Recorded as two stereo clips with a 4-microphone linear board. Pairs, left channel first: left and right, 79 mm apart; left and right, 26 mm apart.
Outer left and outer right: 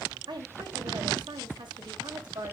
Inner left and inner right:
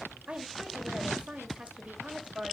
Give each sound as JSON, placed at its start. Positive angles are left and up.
{"t": 0.3, "sound": "a woman speaking", "side_deg": -70, "distance_m": 2.5}